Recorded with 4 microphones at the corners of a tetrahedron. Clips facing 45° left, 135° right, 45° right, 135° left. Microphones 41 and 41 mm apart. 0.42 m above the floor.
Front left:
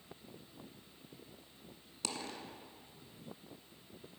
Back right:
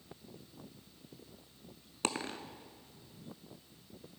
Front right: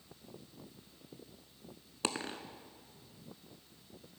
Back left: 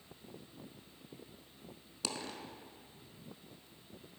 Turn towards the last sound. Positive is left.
turn(degrees=-95)